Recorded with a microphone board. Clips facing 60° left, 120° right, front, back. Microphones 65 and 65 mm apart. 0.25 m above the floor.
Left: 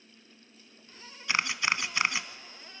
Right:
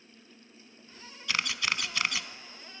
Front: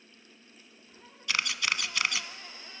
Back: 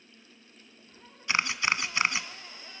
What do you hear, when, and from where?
1.3 s a camera shutter: 125° left, 1.1 m